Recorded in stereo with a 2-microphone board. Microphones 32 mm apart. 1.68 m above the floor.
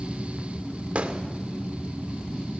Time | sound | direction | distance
0.9 | a gunshot | 40° right (ahead or behind) | 1.9 m